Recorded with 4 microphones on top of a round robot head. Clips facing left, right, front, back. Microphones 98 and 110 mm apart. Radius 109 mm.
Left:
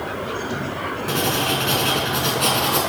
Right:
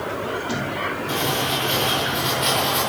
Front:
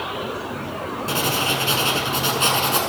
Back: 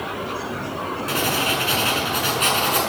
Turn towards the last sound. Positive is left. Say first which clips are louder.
# left 3 dB, even
turn(degrees=60)